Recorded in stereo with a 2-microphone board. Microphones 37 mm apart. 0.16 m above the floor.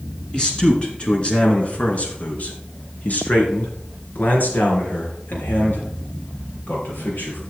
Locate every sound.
0.3 s a man speaking: 25° left (ahead or behind), 2.5 m; by 7.4 s 60° left (ahead or behind), 4.5 m